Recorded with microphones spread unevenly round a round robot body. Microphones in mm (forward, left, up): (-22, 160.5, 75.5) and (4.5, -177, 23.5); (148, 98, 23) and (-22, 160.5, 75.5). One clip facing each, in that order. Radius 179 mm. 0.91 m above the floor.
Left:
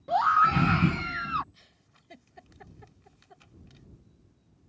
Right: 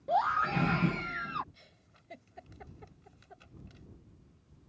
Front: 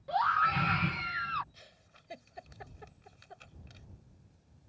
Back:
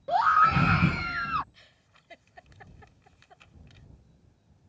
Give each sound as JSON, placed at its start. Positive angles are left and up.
{"t": 0.1, "sound": "a scream", "azimuth_deg": 145}
{"t": 1.5, "sound": "a giggle", "azimuth_deg": 25}